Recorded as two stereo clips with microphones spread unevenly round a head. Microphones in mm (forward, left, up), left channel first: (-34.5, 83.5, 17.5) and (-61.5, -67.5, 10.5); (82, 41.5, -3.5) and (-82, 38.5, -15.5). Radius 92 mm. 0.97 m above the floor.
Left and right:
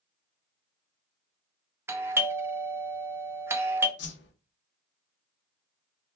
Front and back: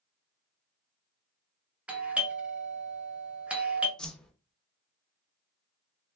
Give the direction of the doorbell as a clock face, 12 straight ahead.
4 o'clock.